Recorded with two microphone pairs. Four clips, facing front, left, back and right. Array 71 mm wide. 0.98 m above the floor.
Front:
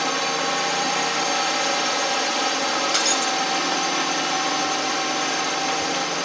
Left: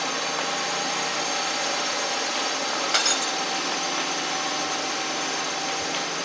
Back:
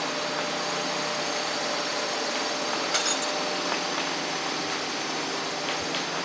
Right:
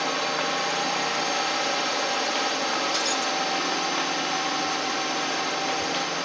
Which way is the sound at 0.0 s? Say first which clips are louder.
Right 2 dB, front 6 dB; 5° right.